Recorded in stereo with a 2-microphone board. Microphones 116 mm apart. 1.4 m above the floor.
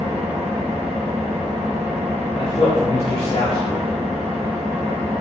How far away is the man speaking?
About 0.8 m.